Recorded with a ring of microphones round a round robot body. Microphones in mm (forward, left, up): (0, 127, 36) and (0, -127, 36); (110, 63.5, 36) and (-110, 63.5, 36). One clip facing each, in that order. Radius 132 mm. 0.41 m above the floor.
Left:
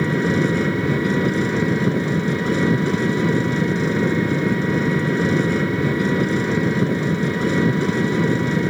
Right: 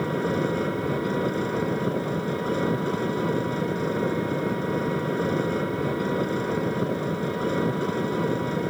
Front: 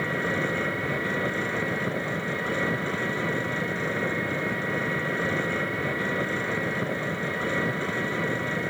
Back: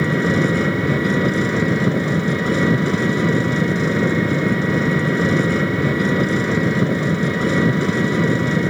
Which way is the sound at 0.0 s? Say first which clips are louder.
Left 6 dB, back 11 dB; 145° left.